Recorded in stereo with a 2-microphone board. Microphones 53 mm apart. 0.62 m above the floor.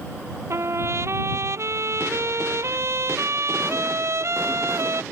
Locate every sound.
0.5 s a trumpet: 60° right (ahead or behind)